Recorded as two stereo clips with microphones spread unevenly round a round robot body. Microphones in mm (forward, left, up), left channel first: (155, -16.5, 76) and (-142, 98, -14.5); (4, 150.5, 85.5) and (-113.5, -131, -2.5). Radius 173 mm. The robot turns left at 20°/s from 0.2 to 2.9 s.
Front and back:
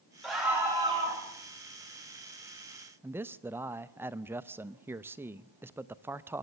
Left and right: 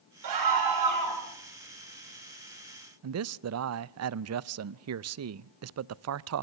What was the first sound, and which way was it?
A scream, 110° right.